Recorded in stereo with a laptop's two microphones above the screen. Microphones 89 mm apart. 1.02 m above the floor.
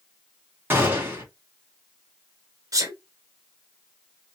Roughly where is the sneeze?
Right.